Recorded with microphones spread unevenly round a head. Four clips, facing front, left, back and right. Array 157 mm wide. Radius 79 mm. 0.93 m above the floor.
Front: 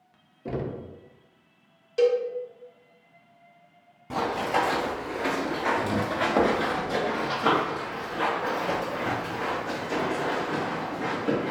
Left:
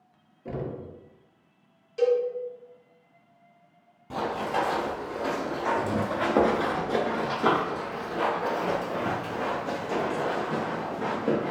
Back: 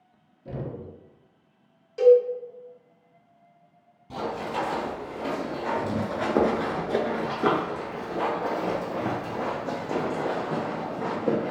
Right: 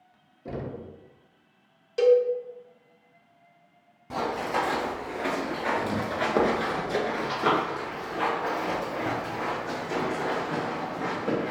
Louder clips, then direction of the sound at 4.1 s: Even, front 4 dB; 10° right.